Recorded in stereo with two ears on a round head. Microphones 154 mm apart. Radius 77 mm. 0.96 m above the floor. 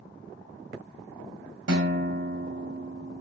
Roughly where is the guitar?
Right.